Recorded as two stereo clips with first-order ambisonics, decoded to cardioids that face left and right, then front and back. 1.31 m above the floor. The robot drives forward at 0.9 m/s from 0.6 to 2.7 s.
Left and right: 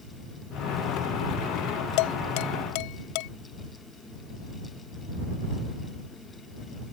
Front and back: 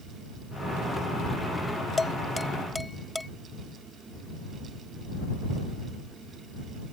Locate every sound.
2.0 s dishes clattering: 75° left; by 3.3 s 85° left